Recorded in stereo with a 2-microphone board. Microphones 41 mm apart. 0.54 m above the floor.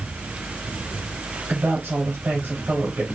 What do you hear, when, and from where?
1.5 s a woman speaking: 65° right (ahead or behind), 2.5 m